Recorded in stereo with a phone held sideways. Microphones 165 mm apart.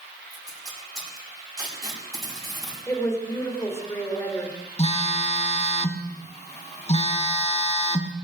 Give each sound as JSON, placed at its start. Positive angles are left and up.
{"t": 0.3, "sound": "tape being pulled", "side_deg": -20, "distance_m": 5.5}
{"t": 2.9, "sound": "a woman speaking", "side_deg": 15, "distance_m": 3.5}
{"t": 4.8, "sound": "a phone buzzing", "side_deg": 40, "distance_m": 1.3}